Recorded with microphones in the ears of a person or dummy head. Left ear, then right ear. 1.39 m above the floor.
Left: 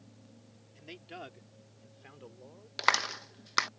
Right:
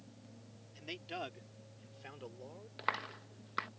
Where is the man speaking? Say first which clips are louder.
Right 3 dB; 15° right (ahead or behind).